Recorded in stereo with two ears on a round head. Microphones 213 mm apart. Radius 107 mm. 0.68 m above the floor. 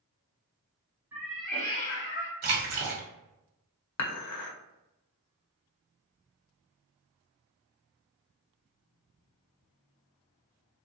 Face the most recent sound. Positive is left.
turn(degrees=70)  # may be behind; listen again after turning